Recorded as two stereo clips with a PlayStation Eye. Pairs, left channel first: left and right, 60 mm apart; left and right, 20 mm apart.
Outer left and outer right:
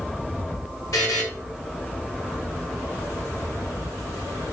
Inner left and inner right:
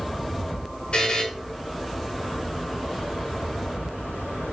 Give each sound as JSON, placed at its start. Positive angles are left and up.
{"t": 0.9, "sound": "a buzzer", "side_deg": 80, "distance_m": 5.0}